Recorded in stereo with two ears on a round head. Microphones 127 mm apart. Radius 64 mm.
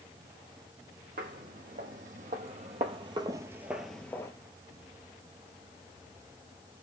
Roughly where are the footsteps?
Right.